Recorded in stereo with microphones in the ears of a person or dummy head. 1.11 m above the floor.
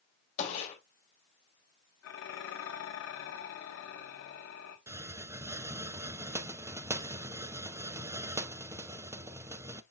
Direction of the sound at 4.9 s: 15° right (ahead or behind).